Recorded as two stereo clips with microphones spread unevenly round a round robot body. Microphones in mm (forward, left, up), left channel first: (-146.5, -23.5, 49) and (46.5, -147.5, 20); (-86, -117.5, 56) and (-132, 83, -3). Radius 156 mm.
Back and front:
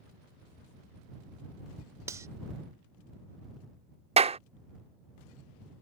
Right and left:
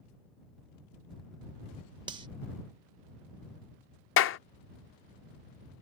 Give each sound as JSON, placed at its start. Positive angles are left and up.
{"t": 2.1, "sound": "cutlery clinking", "azimuth_deg": 45}
{"t": 4.2, "sound": "a clap", "azimuth_deg": -80}